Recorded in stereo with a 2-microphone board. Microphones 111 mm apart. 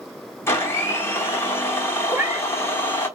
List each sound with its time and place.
0.5 s a blender: 25° left (ahead or behind), 1.1 m
2.1 s a cat meowing: 15° right (ahead or behind), 1.9 m